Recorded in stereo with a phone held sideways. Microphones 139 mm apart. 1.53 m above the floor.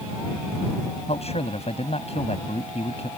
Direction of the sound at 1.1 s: 50° left (ahead or behind).